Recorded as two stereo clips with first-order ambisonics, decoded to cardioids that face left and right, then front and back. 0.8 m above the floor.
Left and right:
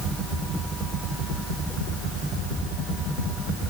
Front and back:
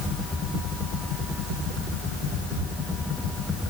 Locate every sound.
Only background noise.